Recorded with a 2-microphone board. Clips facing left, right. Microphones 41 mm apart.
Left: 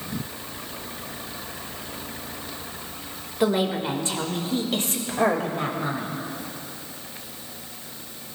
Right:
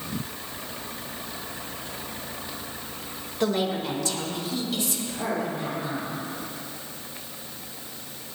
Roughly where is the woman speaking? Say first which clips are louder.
Left 3 dB; centre.